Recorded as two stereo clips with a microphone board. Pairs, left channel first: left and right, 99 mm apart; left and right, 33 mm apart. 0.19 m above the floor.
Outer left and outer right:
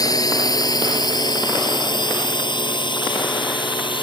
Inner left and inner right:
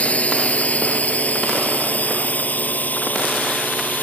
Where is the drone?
40° left (ahead or behind); by 4.0 s 55° left (ahead or behind).